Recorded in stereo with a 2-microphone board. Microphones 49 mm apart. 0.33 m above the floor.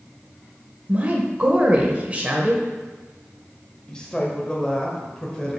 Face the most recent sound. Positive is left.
turn(degrees=15)  # may be behind; listen again after turning